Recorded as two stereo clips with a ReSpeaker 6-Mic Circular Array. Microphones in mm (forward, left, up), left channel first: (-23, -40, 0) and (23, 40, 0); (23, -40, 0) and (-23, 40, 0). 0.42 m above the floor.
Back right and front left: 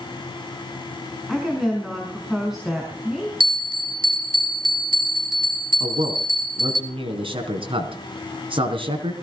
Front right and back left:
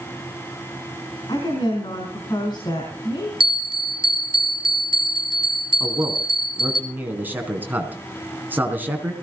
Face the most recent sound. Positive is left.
turn(degrees=50)